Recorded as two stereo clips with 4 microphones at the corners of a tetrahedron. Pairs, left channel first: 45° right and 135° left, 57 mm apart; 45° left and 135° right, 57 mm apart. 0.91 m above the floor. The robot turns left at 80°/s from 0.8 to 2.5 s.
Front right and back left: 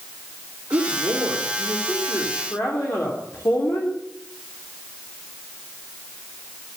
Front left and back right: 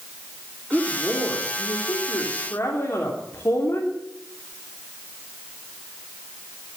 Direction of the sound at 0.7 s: 135° left.